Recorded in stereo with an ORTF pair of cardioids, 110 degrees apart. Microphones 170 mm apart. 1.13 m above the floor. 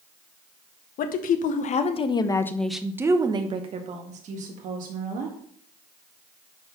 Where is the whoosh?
No whoosh in this recording.